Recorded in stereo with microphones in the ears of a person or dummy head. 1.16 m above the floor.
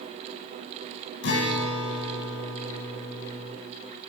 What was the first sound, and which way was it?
A guitar, 50° left (ahead or behind).